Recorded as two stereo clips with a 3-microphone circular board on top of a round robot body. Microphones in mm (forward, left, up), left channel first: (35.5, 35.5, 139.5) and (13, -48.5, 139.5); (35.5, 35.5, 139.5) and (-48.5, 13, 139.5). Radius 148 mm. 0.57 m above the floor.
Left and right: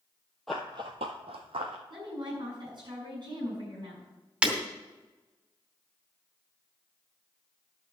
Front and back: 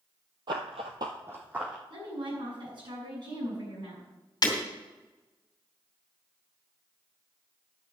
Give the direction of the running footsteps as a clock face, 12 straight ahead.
7 o'clock.